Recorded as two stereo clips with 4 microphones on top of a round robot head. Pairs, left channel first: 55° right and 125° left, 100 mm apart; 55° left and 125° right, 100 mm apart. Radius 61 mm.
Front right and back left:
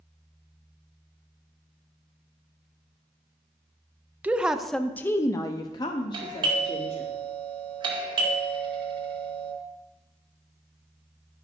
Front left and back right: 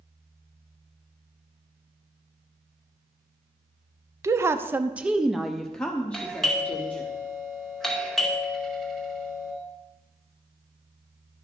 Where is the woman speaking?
165° right, 0.7 m; by 7.1 s 20° right, 1.5 m.